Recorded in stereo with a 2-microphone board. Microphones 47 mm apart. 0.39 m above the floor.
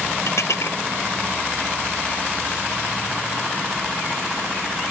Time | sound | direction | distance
0.3 | dishes clattering | 75° left (ahead or behind) | ?